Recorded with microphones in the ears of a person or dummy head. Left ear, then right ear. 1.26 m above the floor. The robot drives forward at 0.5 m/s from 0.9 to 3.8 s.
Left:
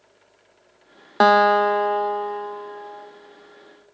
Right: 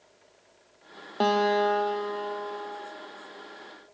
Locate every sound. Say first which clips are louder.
1.2 s a guitar: left 9 dB; 60° left (ahead or behind), 0.6 m; by 3.1 s 20° left (ahead or behind), 1.3 m